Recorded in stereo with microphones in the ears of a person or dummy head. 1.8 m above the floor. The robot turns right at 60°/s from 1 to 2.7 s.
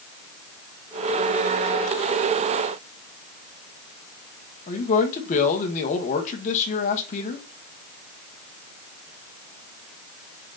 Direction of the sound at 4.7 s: 35° left (ahead or behind).